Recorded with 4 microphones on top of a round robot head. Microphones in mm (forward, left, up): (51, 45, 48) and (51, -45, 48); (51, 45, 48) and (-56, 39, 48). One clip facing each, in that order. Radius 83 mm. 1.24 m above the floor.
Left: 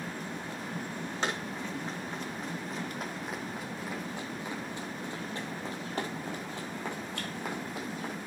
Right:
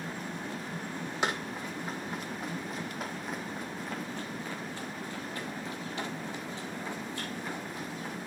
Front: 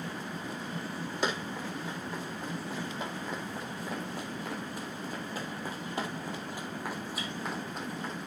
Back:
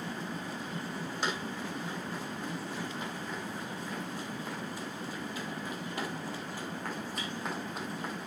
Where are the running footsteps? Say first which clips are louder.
Right 2 dB, front 3 dB; 15° right, 3 m; by 8.1 s 105° left, 2 m.